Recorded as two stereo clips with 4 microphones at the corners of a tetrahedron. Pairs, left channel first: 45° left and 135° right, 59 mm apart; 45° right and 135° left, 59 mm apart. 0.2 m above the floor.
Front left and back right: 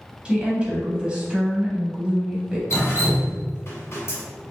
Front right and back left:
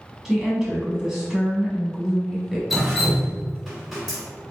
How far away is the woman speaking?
About 1.0 m.